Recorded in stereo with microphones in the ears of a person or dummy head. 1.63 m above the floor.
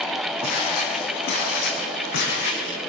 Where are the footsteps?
50° left (ahead or behind), 6.5 m; by 2.8 s 65° left (ahead or behind), 8 m.